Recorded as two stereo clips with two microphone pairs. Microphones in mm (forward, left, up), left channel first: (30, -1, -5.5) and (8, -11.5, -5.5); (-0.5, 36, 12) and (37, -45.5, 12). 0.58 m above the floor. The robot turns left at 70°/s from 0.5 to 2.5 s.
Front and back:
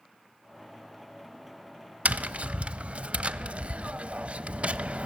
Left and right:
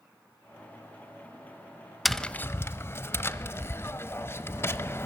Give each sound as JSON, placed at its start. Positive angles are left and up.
{"t": 2.0, "sound": "tapping", "azimuth_deg": -155, "distance_m": 0.6}